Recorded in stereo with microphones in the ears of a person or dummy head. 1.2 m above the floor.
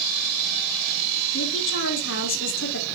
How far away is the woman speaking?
About 1.8 m.